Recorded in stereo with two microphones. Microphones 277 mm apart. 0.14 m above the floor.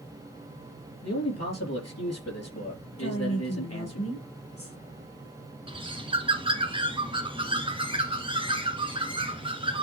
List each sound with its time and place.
1.0 s a man speaking: 65° left (ahead or behind), 3.5 m
3.0 s a woman speaking: 55° left (ahead or behind), 3 m
5.7 s a bird: 20° right (ahead or behind), 1.6 m